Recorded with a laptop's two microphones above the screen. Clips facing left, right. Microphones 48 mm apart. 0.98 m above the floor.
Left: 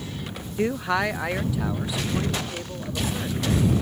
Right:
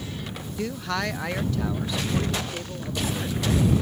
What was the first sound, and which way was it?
A man speaking, 30° left (ahead or behind).